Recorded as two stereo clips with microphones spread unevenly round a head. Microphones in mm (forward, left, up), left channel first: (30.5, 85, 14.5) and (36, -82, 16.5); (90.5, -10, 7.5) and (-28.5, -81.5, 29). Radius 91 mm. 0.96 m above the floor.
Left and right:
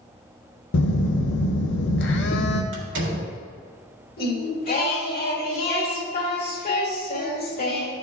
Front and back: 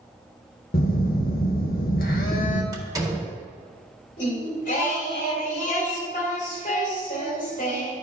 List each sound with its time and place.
0.7 s a phone buzzing: 75° left, 0.8 m
2.7 s a door slam: 80° right, 1.7 m
4.2 s singing: 65° left, 2.0 m